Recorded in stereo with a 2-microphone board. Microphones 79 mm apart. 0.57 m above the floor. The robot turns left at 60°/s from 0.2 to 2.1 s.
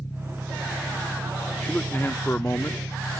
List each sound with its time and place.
0.0 s an engine running: 40° left; by 3.2 s 75° right
1.6 s a man speaking: 10° left (ahead or behind); by 2.8 s 30° left (ahead or behind)